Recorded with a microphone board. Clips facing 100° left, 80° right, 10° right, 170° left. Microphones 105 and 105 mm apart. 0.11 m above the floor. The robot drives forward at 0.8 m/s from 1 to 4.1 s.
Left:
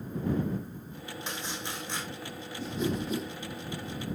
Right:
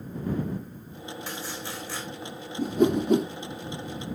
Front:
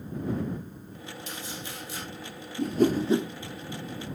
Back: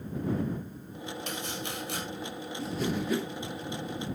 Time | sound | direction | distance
1.3 | chopping | 170° left | 3 m
2.6 | a whoosh | 40° right | 0.8 m